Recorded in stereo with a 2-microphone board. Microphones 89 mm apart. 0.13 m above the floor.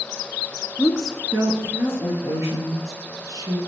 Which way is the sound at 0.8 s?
5° left (ahead or behind).